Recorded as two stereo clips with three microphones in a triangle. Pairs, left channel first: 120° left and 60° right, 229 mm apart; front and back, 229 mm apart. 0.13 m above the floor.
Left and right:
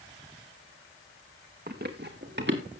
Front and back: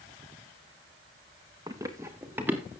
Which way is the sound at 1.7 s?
105° right.